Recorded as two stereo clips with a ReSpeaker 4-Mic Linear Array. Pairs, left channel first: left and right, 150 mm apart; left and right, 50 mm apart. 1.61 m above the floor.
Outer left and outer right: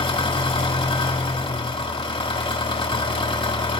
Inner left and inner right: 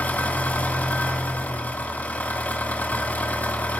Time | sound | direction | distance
0.0 | an engine running | 40° left (ahead or behind) | 2 m